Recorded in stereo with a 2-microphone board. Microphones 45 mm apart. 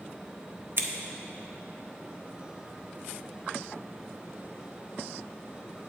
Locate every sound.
0.8 s scissors: 55° right (ahead or behind), 0.9 m